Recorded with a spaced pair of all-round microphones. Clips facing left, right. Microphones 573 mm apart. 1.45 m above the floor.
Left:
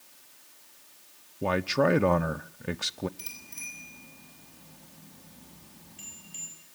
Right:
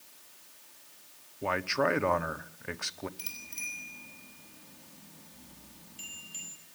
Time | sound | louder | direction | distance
1.4 | a man speaking | left 5 dB | 55° left (ahead or behind) | 0.7 m
3.2 | a bicycle bell | left 1 dB | 60° left (ahead or behind) | 9 m